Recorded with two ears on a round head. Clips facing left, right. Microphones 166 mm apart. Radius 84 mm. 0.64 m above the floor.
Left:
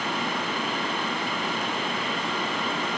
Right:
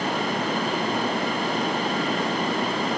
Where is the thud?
No thud in this recording.